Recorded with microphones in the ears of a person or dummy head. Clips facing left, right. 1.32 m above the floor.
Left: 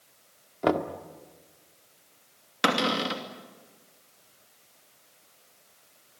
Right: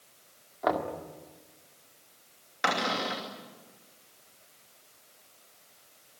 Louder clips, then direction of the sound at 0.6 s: Left 4 dB; 50° left (ahead or behind).